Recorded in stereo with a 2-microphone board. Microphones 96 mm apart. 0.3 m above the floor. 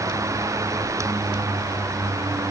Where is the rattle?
I don't hear a rattle.